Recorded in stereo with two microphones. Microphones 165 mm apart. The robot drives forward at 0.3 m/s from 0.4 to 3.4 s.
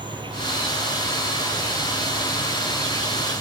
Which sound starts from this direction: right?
An insect, at 0.0 s.